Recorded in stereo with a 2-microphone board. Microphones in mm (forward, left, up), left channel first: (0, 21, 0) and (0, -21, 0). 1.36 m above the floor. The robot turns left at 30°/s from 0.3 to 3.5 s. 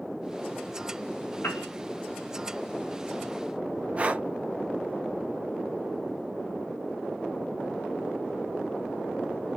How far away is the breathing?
About 0.5 m.